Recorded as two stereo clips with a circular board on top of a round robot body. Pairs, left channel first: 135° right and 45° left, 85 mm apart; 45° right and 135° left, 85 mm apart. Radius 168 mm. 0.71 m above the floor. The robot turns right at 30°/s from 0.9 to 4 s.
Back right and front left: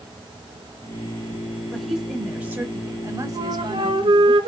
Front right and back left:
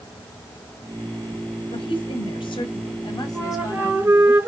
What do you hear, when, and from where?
1.7 s a woman speaking: 50° right, 4 m; by 4.3 s 20° left, 4 m
3.3 s a flute: 45° left, 3 m; by 4.5 s 65° left, 3 m